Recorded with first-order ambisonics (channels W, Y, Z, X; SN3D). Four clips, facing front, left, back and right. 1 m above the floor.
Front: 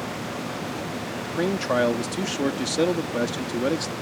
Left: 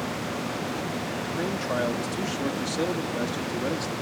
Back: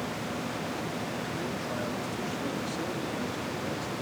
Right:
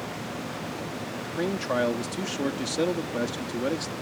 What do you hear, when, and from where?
1.2 s a man speaking: 10° right